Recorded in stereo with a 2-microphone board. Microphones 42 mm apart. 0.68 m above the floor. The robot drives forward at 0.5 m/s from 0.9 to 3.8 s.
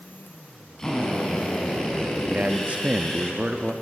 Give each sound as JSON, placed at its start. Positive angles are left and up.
{"t": 0.8, "sound": "a drill", "side_deg": 10, "distance_m": 5.0}
{"t": 2.3, "sound": "a man speaking", "side_deg": -35, "distance_m": 0.8}